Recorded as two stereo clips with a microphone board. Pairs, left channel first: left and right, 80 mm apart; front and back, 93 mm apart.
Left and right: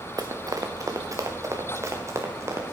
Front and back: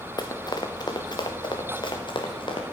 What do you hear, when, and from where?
0.2 s running footsteps: 45° right, 1.2 m; by 2.6 s 35° right, 2.5 m